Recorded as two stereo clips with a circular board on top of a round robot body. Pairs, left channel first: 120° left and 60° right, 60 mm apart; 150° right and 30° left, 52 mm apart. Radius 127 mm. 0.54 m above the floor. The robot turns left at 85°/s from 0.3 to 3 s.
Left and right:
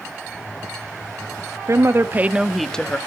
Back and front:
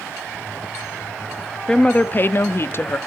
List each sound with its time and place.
1.7 s a woman speaking: 75° right, 1.0 m; by 3.0 s 175° left, 1.0 m